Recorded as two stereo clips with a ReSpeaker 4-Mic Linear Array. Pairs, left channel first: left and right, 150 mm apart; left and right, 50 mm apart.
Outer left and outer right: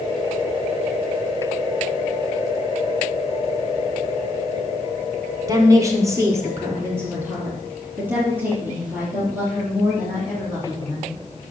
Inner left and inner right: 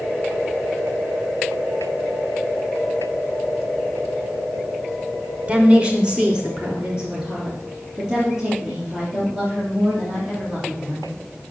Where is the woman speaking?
25° right (ahead or behind), 1.6 m; by 11.1 s 10° right (ahead or behind), 8 m.